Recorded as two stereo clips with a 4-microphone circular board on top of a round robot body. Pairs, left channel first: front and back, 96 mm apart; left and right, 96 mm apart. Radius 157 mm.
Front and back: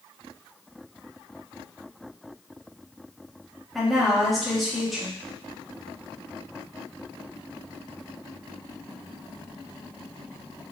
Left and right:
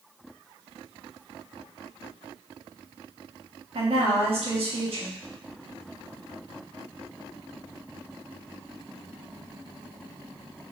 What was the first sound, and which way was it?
A woman speaking, 90° right.